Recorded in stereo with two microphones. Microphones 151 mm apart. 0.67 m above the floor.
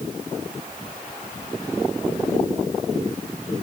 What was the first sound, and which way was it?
Only background noise.